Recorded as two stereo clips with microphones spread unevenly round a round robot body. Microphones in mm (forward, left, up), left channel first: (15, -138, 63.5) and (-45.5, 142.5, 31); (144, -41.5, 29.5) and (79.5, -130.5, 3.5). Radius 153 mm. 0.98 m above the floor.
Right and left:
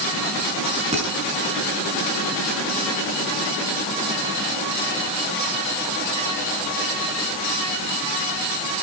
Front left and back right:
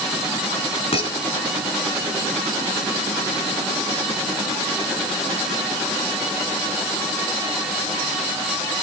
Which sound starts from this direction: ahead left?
Dishes clattering, at 0.9 s.